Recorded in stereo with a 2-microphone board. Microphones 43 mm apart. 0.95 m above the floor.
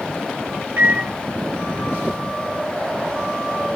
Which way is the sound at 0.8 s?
65° right (ahead or behind).